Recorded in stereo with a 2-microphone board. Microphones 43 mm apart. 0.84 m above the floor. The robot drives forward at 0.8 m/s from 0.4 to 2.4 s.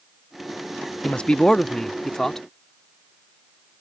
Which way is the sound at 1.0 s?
30° left (ahead or behind).